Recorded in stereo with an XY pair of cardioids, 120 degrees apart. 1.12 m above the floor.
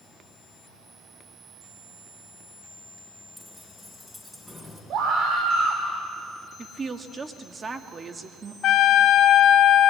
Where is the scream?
65° right, 3 m.